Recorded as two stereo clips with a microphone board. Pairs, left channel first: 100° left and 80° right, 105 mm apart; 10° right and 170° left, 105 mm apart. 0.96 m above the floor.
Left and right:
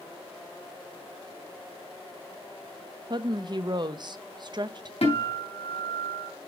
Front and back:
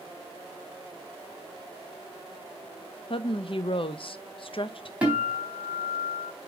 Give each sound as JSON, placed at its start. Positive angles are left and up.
{"t": 3.1, "sound": "a woman speaking", "azimuth_deg": -40, "distance_m": 0.7}
{"t": 5.0, "sound": "a guitar", "azimuth_deg": 90, "distance_m": 3.5}